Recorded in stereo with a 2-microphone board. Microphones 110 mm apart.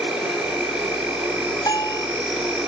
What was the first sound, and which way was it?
An insect, 5° right (ahead or behind).